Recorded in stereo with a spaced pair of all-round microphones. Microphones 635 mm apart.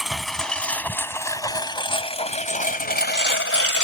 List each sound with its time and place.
0.0 s a lawn mower: centre (ahead or behind); by 3.8 s 20° left (ahead or behind)